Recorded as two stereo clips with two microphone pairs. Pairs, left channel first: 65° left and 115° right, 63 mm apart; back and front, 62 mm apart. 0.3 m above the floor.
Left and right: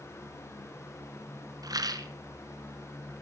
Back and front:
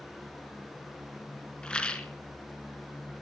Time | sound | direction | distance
1.6 | a rattle | 105° right | 1.3 m